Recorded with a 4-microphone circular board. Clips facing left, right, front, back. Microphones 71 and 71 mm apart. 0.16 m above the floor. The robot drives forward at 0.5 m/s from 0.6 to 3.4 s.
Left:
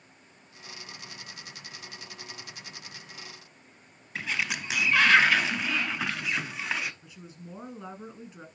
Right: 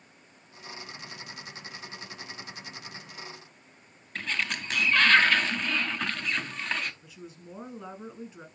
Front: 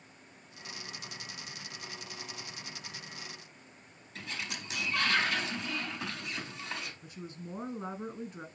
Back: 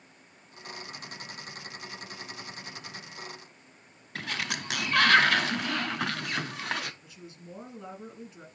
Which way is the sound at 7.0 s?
15° left.